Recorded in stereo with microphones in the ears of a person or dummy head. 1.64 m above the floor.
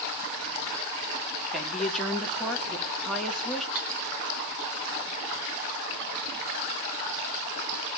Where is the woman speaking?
Centre (ahead or behind), 2 m.